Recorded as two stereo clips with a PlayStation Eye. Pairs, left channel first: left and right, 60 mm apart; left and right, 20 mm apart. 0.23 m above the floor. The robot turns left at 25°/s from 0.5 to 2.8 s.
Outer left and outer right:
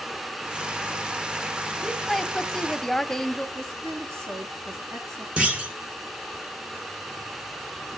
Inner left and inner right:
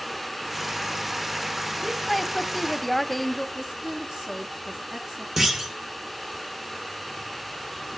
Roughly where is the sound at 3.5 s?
Right.